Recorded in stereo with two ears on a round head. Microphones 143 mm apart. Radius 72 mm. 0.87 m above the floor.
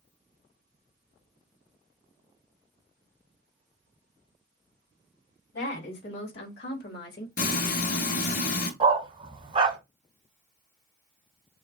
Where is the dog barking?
35° right (ahead or behind), 1.7 m.